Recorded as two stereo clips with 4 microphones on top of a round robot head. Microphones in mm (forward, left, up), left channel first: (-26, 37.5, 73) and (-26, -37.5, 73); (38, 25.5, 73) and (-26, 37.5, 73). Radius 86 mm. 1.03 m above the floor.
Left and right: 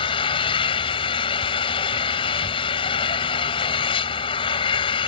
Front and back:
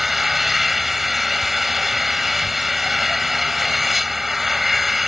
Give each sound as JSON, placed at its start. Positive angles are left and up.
{"t": 0.0, "sound": "an engine running", "azimuth_deg": 80}